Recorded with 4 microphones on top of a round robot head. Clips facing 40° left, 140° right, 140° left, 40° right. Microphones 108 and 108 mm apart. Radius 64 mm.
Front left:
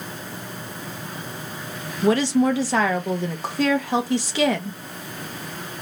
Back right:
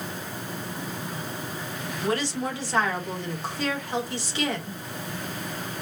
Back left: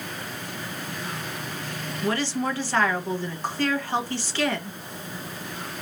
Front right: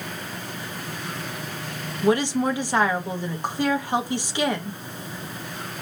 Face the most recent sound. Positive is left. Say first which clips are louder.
# front left 10 dB, front right 5 dB
turn(degrees=35)